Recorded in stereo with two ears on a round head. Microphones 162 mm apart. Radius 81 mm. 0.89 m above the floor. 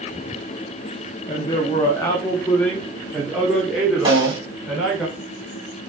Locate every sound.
1.3 s a man speaking: 30° left (ahead or behind), 1.1 m; by 5.0 s 5° right (ahead or behind), 2.5 m
4.0 s a snare drum: 25° right (ahead or behind), 3 m